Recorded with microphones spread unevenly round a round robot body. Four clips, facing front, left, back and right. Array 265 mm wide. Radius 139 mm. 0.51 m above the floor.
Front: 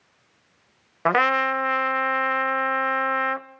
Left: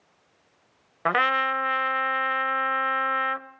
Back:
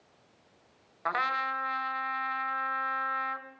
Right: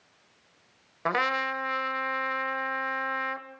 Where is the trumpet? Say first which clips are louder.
Left 4 dB, front 10 dB; 10° left, 1.1 m.